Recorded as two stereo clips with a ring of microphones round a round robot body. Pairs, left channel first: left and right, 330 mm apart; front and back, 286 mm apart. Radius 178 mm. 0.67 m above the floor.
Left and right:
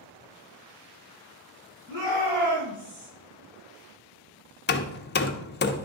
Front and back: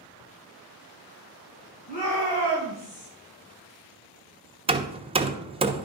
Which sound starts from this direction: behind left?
Hammering, at 4.7 s.